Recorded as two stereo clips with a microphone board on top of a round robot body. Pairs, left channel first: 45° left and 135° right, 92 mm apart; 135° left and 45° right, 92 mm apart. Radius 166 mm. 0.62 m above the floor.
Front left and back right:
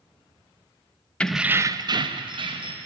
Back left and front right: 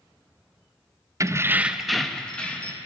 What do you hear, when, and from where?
1.2 s keys jangling: 25° right, 0.6 m; by 2.8 s 150° right, 1.3 m